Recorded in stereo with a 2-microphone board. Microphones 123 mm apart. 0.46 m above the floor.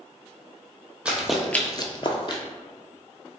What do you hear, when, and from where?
1.1 s running footsteps: 10° right (ahead or behind), 1.0 m; by 2.4 s 40° left (ahead or behind), 1.0 m